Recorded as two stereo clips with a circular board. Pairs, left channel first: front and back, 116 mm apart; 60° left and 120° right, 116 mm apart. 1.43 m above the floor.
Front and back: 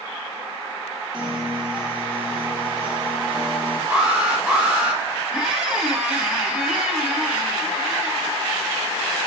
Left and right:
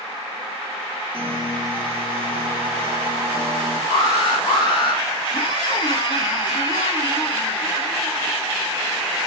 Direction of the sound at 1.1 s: 100° left.